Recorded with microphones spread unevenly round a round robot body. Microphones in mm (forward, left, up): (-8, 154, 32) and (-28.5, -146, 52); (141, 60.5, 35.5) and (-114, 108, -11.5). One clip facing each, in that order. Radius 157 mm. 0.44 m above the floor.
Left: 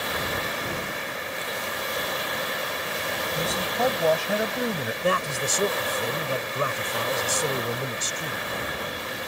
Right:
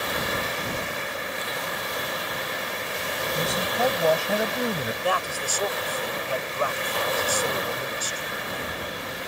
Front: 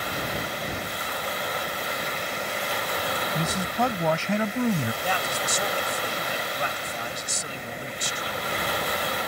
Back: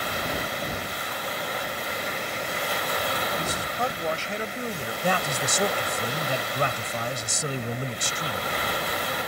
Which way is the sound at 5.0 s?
145° left.